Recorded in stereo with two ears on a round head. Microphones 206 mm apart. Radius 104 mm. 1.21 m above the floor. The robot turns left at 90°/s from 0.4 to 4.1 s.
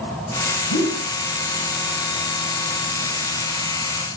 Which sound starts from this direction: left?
A whoosh, at 0.7 s.